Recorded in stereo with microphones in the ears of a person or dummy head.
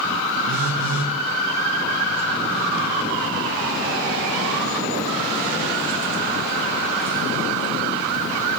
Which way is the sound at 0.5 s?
70° right (ahead or behind).